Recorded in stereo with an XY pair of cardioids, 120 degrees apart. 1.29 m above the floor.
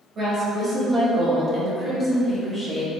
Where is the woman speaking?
45° right, 1.7 m; by 2.9 s 15° left, 0.9 m.